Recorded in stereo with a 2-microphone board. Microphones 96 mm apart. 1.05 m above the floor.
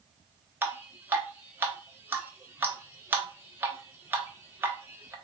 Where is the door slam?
I don't hear a door slam.